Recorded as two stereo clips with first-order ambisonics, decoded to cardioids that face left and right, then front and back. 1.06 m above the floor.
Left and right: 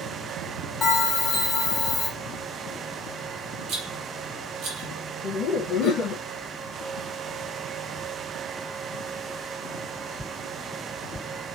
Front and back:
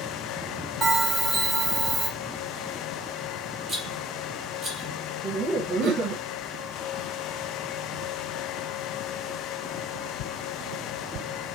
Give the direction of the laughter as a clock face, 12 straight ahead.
7 o'clock.